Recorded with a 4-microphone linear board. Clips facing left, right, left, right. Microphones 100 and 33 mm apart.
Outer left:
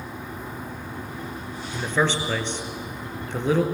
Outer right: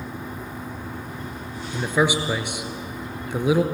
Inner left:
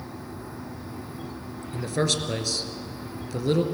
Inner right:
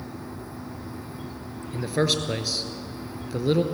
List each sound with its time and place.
1.7 s a man speaking: 10° right (ahead or behind), 2 m